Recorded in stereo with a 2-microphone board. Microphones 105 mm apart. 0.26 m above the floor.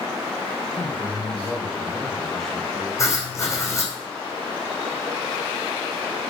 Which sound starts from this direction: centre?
A man speaking, at 0.7 s.